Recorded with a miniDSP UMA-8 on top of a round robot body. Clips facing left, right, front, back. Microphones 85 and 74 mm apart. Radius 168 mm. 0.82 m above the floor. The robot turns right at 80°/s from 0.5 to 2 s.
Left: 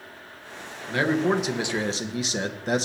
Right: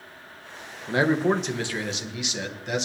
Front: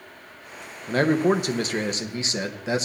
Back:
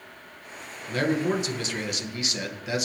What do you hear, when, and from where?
0.9 s a man speaking: 40° right, 1.4 m; by 2.9 s 50° left, 1.4 m